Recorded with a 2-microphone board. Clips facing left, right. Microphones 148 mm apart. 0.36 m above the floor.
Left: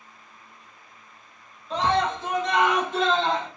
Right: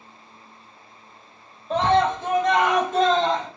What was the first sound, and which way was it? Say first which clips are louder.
A scream: right 4 dB; 55° right (ahead or behind).